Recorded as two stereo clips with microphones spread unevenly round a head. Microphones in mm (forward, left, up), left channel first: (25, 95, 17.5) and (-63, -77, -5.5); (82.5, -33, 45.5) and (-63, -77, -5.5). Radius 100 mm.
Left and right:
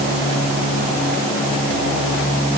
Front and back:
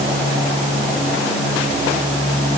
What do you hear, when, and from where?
Only background noise.